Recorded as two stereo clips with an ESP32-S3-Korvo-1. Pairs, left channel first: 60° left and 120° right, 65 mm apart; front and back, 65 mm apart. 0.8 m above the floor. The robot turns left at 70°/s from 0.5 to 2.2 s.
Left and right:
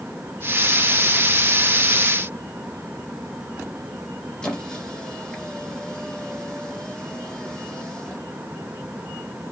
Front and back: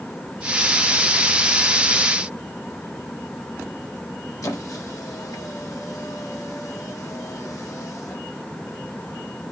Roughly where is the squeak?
Ahead.